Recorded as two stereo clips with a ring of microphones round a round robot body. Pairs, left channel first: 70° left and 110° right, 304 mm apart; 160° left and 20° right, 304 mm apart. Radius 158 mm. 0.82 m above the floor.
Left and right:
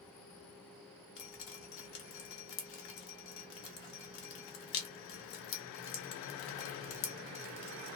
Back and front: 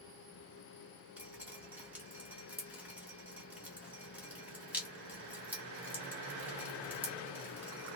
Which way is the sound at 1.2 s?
65° left.